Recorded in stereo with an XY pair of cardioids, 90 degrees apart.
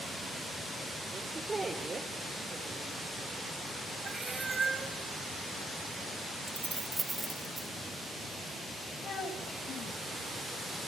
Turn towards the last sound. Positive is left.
turn(degrees=65)